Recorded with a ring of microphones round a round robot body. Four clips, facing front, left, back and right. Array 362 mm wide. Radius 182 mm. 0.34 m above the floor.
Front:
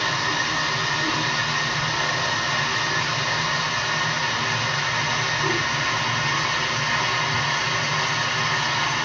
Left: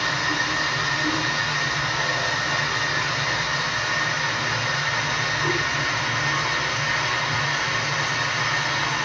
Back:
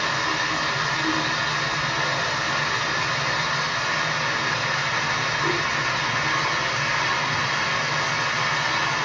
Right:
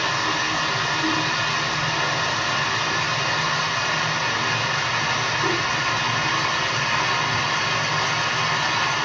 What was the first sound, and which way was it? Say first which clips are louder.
Running water: right 2 dB, even; 110° right.